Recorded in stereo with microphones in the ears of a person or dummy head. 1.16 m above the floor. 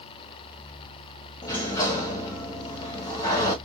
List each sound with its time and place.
1.4 s a sliding door: 20° left (ahead or behind), 0.8 m